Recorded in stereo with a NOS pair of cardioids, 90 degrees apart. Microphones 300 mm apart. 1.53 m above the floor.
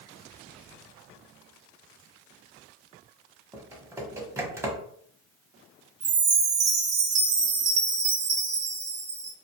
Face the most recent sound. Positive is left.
turn(degrees=-35)